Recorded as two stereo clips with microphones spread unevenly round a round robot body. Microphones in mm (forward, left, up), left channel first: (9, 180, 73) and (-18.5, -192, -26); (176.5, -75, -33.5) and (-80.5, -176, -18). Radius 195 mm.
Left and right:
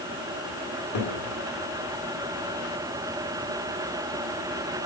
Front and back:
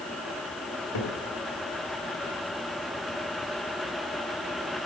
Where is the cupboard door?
35° left, 2 m.